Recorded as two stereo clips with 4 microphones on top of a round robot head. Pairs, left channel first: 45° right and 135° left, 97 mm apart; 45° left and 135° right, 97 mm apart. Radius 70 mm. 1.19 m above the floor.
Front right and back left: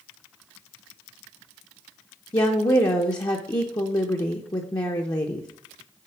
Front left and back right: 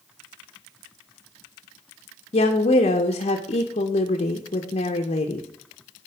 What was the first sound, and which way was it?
A woman speaking, 15° left.